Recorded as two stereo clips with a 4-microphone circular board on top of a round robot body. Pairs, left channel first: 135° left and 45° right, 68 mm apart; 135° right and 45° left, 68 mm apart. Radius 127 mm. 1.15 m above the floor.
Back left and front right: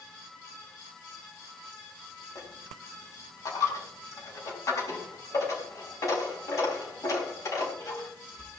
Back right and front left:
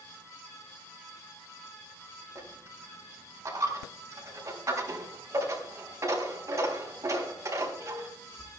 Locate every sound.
2.4 s a dropped coin: 95° left, 4.5 m